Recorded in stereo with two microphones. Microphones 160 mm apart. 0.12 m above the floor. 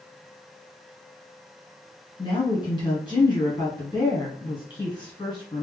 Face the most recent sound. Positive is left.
turn(degrees=30)  # may be behind; listen again after turning